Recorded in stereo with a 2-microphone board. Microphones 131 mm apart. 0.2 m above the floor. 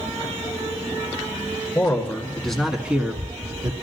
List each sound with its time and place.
1.8 s a man speaking: 15° left (ahead or behind), 2 m; by 3.7 s 35° right (ahead or behind), 1.6 m